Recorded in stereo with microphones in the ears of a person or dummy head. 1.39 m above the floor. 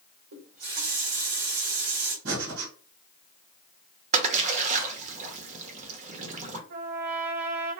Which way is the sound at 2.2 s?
75° right (ahead or behind).